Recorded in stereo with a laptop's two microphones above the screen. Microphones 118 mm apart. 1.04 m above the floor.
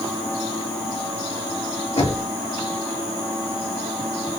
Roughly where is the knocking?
Left.